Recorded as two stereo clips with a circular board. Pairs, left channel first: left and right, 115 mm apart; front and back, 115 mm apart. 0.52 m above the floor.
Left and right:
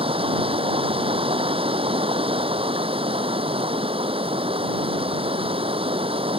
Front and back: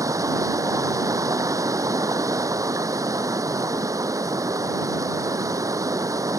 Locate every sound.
0.0 s running water: 120° right